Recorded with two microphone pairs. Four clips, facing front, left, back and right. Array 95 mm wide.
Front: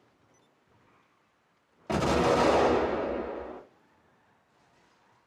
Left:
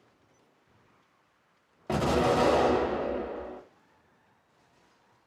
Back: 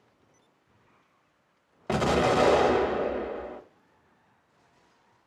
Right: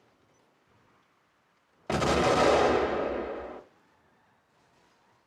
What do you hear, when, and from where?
1.9 s an explosion: 140° right, 0.7 m